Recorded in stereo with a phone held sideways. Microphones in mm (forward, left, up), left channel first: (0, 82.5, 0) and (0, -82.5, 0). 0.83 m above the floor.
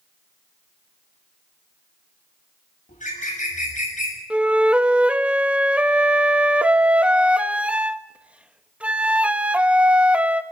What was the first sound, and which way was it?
A bird, 55° left (ahead or behind).